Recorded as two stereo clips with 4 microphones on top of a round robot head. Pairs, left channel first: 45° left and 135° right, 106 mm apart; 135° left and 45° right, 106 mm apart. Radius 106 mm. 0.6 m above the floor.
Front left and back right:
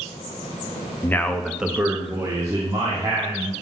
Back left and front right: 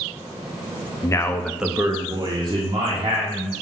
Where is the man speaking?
105° left, 1.0 m; by 3.5 s 80° right, 2.5 m.